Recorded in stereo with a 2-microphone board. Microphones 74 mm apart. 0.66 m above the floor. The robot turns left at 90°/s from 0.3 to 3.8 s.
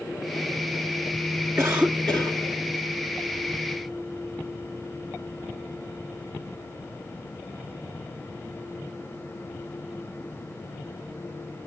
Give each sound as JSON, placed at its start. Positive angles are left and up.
{"t": 1.6, "sound": "a cough", "azimuth_deg": -165, "distance_m": 1.4}